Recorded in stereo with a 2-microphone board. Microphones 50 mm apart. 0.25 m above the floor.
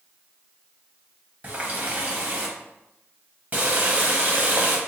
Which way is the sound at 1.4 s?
30° right (ahead or behind).